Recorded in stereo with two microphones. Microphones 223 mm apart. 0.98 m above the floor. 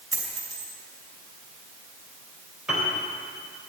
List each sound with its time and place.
0.1 s a dropped coin: 80° right, 2.5 m
2.7 s a piano: 5° right (ahead or behind), 3 m